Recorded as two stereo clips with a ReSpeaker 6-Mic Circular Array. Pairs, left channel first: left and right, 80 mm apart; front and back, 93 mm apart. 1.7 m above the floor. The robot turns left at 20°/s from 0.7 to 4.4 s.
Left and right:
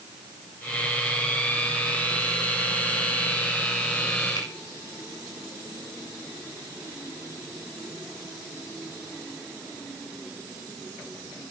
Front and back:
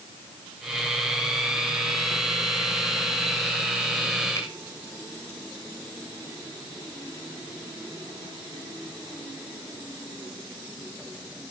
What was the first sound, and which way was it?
A finger snap, 60° left.